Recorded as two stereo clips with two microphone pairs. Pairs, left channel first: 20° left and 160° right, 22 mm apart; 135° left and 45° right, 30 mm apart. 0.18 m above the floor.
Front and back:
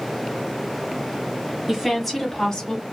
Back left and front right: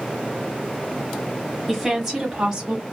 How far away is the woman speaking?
About 1.1 m.